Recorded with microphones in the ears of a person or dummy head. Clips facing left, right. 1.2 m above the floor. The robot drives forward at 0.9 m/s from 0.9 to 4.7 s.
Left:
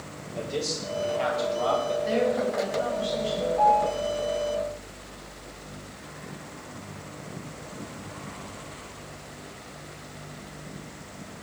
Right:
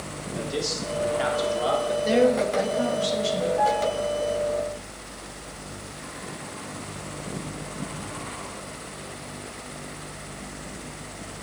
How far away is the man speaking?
About 3.5 m.